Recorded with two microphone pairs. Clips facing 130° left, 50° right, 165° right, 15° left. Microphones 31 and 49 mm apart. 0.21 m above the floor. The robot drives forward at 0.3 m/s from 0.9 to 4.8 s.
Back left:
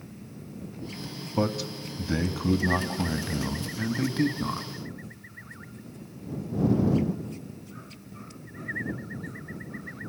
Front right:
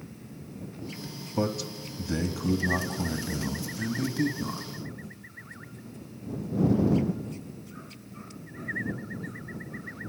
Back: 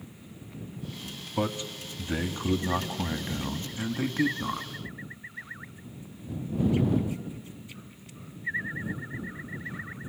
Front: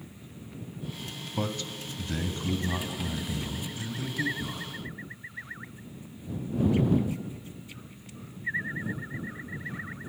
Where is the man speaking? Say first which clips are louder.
Back left 2 dB, back 3 dB; 160° left, 1.2 m; by 4.7 s 175° left, 1.8 m.